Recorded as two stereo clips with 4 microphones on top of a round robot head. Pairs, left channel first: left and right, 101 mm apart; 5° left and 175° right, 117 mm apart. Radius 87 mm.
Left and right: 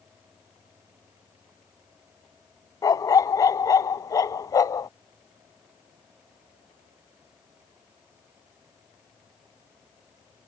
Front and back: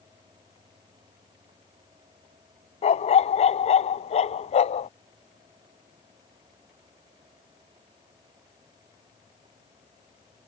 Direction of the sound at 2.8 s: 35° left.